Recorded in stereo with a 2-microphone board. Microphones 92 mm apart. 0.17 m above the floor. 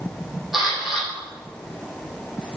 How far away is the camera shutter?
About 7 m.